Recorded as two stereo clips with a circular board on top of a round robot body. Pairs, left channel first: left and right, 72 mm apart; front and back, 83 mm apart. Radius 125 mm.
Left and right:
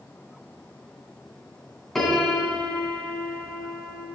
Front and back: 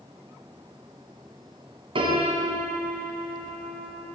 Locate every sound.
1.9 s a piano: 175° left, 2.5 m